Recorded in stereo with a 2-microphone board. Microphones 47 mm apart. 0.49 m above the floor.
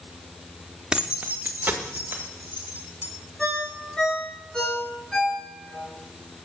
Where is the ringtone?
15° left (ahead or behind), 4.5 m.